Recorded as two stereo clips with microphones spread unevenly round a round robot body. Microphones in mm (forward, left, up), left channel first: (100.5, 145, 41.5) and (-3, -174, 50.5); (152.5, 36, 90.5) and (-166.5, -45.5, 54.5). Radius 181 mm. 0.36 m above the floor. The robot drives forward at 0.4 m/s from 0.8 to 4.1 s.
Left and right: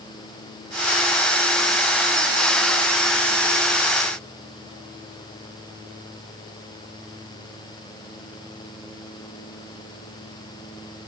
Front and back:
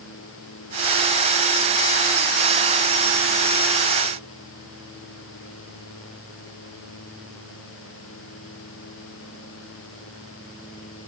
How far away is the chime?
No chime in this recording.